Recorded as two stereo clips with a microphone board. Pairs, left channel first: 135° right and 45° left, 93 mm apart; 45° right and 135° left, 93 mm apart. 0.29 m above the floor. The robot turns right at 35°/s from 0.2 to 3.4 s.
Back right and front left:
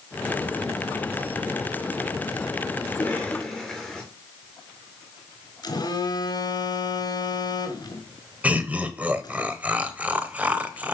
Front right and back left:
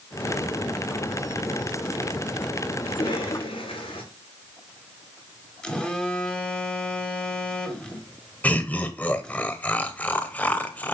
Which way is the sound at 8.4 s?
Straight ahead.